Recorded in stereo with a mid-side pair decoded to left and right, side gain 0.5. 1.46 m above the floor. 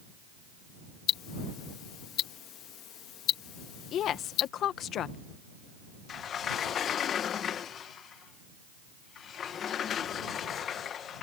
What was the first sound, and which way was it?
Ticking, 70° left.